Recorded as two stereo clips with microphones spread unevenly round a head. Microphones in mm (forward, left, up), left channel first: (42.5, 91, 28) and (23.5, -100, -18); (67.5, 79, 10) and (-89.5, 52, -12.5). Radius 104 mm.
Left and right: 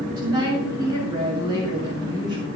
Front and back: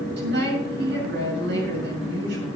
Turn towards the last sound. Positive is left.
turn(degrees=-170)